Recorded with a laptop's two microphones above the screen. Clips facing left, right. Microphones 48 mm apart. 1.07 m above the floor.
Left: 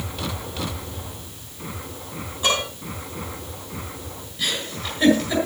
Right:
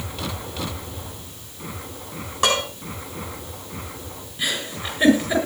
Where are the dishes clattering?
80° right, 8 m.